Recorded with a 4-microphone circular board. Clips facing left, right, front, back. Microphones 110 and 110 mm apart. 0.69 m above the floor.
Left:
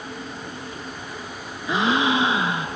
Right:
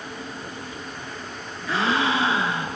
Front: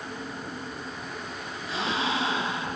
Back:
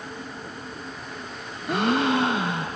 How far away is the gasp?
About 1.4 m.